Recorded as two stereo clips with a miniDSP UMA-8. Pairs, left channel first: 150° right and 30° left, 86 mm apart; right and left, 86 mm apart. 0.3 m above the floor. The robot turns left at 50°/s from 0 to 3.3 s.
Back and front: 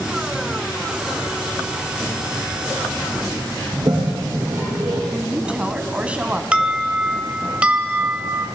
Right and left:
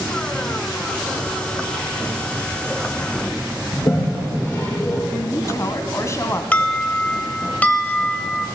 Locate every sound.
3.7 s a toilet flushing: 30° right, 7.5 m
5.1 s a woman speaking: 45° right, 2 m
6.5 s an alarm: 35° right, 1.7 m